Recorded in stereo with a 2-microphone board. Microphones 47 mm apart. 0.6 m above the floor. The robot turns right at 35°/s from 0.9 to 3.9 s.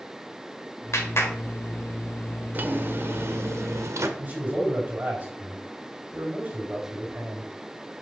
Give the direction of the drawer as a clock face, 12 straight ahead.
5 o'clock.